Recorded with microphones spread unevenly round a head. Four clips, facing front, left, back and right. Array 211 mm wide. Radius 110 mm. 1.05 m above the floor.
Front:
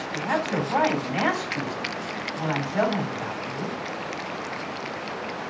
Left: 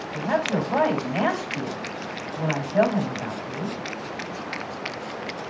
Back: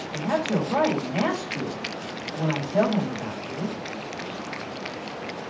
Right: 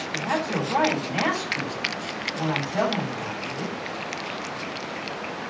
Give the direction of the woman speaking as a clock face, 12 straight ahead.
6 o'clock.